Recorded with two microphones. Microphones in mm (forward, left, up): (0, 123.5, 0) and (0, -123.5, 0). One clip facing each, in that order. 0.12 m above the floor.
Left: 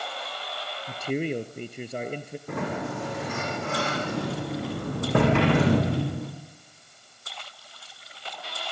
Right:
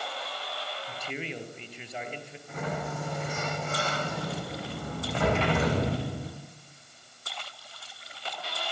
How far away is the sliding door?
About 7.5 m.